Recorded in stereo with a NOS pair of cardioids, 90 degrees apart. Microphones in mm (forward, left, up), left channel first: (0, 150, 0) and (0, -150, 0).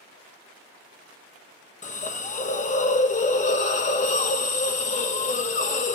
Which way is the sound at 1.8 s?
25° left.